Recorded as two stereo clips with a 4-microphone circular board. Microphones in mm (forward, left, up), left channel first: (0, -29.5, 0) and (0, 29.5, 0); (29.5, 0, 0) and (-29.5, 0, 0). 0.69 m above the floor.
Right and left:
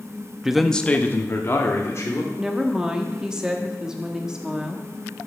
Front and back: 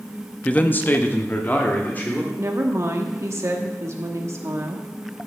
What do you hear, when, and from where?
0.5 s a man speaking: 30° left, 0.6 m; by 2.3 s 60° right, 1.9 m
2.4 s a woman speaking: 165° left, 1.2 m